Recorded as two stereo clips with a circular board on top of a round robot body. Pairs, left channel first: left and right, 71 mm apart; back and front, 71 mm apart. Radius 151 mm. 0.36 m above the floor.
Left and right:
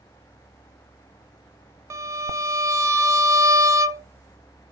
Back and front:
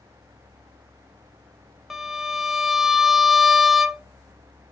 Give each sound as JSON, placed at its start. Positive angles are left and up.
{"t": 1.9, "sound": "a violin", "azimuth_deg": -85, "distance_m": 0.7}